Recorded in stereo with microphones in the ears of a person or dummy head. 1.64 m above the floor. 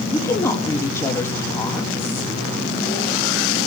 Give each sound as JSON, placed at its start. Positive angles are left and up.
{"t": 0.1, "sound": "a woman speaking", "side_deg": 20, "distance_m": 2.0}